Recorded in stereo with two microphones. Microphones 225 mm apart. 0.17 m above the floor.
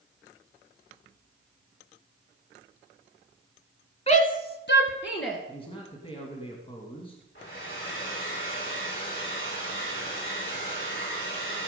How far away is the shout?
About 1.4 m.